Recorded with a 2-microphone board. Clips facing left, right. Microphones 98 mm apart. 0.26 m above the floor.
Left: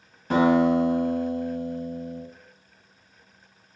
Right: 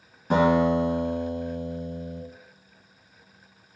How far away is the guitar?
About 1.6 m.